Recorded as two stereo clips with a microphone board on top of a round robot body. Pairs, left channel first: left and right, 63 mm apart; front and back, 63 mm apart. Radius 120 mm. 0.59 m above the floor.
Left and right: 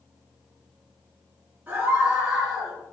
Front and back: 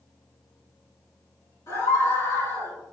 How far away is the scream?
About 3.5 m.